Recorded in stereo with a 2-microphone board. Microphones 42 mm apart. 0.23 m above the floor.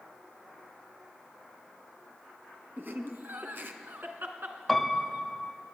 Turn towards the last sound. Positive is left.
turn(degrees=5)  # may be behind; listen again after turning